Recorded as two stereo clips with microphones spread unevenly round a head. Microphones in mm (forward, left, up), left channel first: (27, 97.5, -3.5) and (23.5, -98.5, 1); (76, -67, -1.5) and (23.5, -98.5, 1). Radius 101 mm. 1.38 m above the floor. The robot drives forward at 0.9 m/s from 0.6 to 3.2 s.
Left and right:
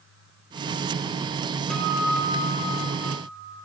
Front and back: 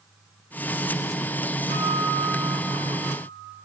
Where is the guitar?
175° left, 1.2 m; by 3.6 s straight behind, 2.5 m.